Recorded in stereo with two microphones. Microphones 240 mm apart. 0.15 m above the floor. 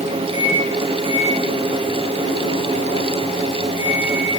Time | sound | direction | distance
0.3 | a microwave | 55° left (ahead or behind) | 6.5 m